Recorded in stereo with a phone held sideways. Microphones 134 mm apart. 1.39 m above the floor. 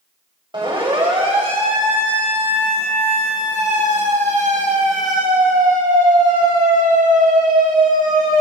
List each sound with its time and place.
0.5 s a siren: 40° right (ahead or behind), 8.5 m; by 8.4 s 90° right, 9.5 m